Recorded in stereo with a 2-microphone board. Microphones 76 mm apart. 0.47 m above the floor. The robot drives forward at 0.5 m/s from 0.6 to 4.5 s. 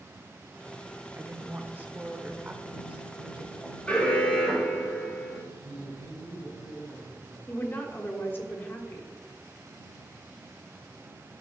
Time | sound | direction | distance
1.1 | a woman speaking | 30° right (ahead or behind) | 0.8 m
3.9 | an alarm | 20° left (ahead or behind) | 3 m
5.6 | a man speaking | 75° left (ahead or behind) | 4 m
7.5 | a woman speaking | 30° left (ahead or behind) | 1.3 m